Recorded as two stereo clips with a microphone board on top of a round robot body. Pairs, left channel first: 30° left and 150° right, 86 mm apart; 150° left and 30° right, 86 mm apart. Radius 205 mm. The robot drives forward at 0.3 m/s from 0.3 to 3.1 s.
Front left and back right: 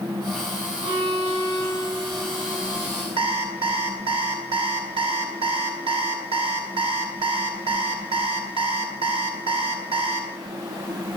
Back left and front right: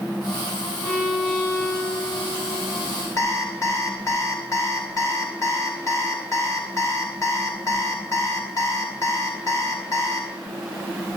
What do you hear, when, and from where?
0.8 s a violin: 140° right, 7.5 m
3.2 s an alarm clock: 155° right, 2.0 m